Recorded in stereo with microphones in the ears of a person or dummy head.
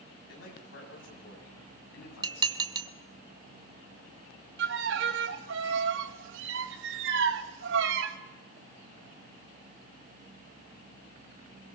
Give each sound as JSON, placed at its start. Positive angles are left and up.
{"t": 0.3, "sound": "a man speaking", "side_deg": 85, "distance_m": 9.0}
{"t": 2.2, "sound": "dishes clattering", "side_deg": -25, "distance_m": 1.4}
{"t": 4.6, "sound": "a violin", "side_deg": -70, "distance_m": 1.8}